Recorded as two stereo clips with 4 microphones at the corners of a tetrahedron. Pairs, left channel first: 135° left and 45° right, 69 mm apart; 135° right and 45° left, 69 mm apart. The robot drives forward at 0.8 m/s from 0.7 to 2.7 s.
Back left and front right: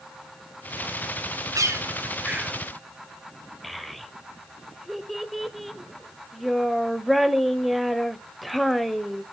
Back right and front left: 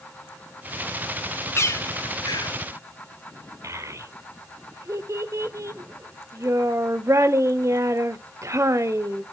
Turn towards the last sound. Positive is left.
turn(degrees=45)